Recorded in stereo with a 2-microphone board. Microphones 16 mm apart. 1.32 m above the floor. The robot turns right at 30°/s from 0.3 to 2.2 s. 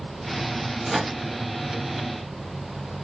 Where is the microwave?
15° right (ahead or behind), 0.7 m; by 1.1 s 5° right (ahead or behind), 0.7 m.